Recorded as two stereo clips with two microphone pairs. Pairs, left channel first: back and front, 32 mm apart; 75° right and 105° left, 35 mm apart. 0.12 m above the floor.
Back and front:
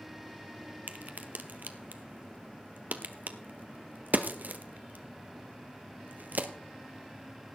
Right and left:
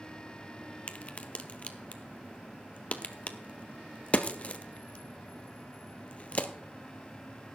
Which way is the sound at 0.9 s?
25° right.